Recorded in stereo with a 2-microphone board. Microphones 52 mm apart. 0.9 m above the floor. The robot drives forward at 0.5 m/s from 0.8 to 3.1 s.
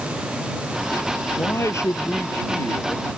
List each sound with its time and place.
1.4 s a man speaking: 65° left (ahead or behind)